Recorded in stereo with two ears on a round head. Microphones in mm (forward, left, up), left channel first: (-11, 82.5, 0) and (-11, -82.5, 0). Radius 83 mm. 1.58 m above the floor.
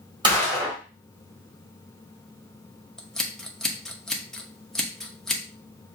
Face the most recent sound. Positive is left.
turn(degrees=5)  # may be behind; listen again after turning